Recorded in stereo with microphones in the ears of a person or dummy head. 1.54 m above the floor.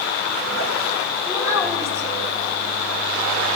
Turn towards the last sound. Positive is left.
turn(degrees=-15)  # may be behind; listen again after turning